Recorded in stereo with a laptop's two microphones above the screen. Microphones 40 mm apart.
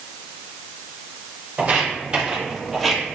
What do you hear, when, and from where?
1.6 s footsteps: 35° right (ahead or behind), 1.4 m; by 3.2 s 15° left (ahead or behind), 1.1 m